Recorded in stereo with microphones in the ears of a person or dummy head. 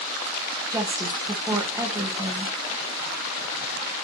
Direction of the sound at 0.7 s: 25° right (ahead or behind).